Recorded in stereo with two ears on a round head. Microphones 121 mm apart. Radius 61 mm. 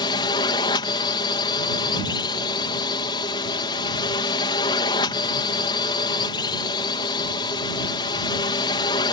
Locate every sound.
0.0 s a drone: 35° left (ahead or behind)